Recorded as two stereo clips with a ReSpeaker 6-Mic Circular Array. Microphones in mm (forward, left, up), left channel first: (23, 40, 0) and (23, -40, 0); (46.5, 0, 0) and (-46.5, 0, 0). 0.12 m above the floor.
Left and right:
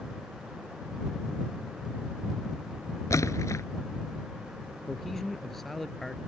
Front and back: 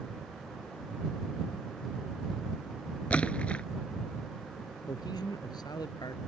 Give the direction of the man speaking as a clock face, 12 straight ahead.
12 o'clock.